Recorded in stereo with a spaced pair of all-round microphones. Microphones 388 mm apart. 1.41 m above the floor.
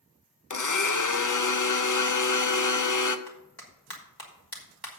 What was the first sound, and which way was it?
A blender, 55° left (ahead or behind).